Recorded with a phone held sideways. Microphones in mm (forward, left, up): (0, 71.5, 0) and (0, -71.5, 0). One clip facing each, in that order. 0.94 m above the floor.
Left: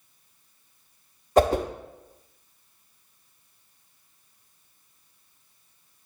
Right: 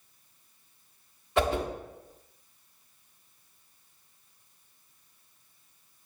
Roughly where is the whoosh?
Left.